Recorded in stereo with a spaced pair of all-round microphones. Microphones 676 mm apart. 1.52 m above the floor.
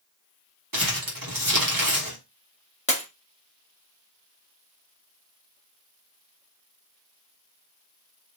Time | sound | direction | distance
0.7 | crumpling | 30° right (ahead or behind) | 1.2 m
2.9 | breaking glass | 10° left (ahead or behind) | 1.0 m